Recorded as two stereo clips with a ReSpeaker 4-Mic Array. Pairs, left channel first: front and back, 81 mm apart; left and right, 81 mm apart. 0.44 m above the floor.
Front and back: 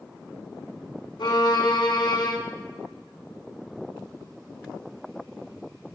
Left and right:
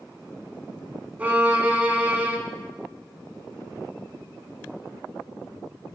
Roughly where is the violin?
Ahead.